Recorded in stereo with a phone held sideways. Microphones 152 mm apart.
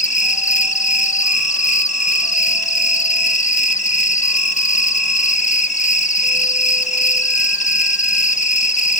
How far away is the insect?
About 1.2 m.